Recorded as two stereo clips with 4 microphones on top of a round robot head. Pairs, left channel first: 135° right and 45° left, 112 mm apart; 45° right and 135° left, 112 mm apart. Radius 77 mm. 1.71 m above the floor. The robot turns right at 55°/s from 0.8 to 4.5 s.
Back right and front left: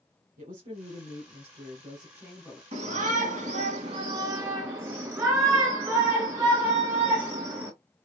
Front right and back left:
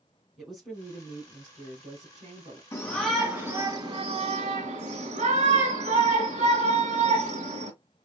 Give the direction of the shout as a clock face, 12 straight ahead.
11 o'clock.